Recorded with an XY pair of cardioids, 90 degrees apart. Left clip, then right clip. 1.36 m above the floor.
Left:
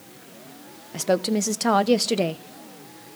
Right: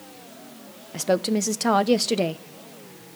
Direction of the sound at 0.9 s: Straight ahead.